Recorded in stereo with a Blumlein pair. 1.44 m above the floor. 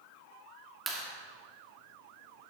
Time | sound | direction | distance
0.9 | a clap | 10° right | 2.5 m